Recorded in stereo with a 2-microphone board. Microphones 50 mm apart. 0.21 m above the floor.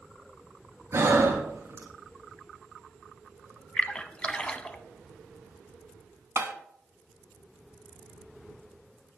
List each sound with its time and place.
0.9 s breathing: 70° right (ahead or behind), 1.9 m
3.8 s a splash: 25° left (ahead or behind), 0.6 m
6.4 s tapping: 55° right (ahead or behind), 0.8 m